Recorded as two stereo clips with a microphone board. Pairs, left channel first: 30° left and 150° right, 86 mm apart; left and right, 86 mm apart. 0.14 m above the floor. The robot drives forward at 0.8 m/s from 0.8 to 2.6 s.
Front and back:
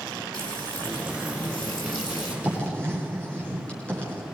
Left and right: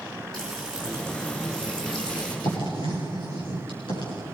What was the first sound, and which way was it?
Frying, 5° left.